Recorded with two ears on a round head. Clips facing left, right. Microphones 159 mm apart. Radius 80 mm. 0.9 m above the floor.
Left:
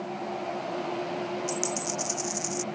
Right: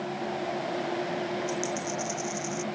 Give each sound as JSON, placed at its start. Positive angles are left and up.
{"t": 1.5, "sound": "a dropped coin", "side_deg": 40}